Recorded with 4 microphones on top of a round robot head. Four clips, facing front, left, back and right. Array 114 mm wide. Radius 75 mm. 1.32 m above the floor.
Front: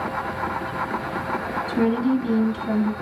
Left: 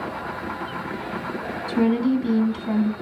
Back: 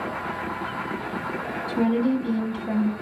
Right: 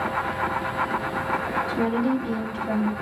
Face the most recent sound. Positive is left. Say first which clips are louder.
# left 5 dB, front 1 dB
turn(degrees=75)